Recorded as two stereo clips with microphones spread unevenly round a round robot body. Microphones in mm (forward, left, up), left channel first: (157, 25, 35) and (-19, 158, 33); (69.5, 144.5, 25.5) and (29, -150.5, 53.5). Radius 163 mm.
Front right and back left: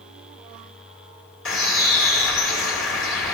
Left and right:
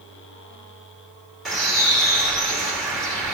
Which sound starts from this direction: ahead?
A bird, at 1.4 s.